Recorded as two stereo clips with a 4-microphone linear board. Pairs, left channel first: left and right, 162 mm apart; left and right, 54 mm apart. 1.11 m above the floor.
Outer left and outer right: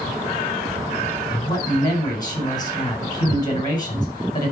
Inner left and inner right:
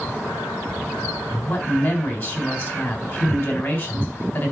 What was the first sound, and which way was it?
A man speaking, 25° left (ahead or behind).